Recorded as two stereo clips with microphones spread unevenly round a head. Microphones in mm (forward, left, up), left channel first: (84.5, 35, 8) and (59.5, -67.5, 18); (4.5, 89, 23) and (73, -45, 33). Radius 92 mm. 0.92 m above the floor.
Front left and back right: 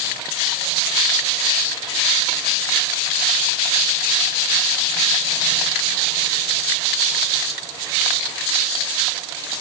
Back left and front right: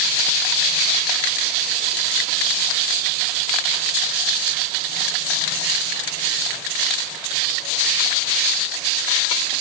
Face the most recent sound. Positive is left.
No sound to turn to.